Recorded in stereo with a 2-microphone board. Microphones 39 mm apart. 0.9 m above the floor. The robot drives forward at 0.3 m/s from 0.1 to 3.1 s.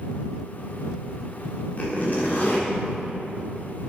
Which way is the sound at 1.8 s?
45° left (ahead or behind).